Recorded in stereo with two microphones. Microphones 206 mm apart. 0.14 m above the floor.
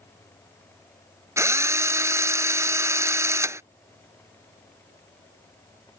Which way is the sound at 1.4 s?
15° right (ahead or behind).